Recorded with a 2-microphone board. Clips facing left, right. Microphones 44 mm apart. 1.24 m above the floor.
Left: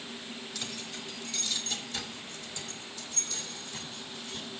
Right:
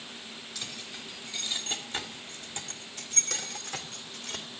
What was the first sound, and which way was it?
Keys jangling, centre (ahead or behind).